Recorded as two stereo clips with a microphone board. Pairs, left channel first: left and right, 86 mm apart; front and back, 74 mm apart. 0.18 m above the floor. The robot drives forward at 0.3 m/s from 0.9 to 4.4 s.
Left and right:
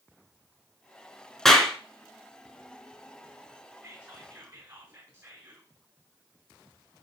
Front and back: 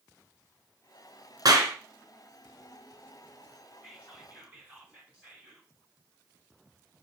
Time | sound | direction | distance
1.4 | a clap | 175° left | 1.5 m
3.8 | whispering | 115° right | 1.3 m